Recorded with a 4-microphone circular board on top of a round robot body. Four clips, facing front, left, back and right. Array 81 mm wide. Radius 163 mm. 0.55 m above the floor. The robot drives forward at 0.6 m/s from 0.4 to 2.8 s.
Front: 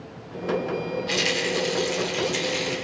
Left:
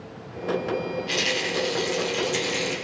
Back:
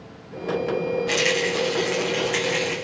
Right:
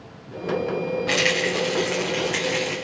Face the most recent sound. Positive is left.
turn(degrees=-145)